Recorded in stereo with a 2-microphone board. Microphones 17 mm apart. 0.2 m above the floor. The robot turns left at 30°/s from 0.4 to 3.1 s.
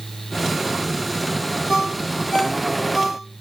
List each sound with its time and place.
1.7 s a ringtone: 75° left (ahead or behind), 3.5 m; by 3.2 s 40° left (ahead or behind), 3.5 m